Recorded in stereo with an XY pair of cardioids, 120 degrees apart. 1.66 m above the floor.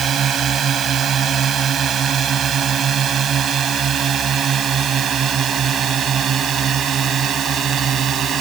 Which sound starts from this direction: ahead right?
A drone, at 0.0 s.